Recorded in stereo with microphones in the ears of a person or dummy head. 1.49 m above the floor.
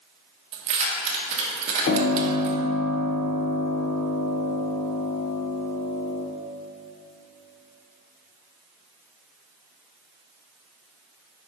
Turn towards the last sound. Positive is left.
turn(degrees=40)  # may be behind; listen again after turning